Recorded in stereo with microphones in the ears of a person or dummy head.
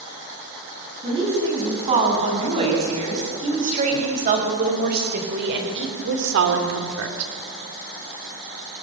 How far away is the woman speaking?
About 9.5 m.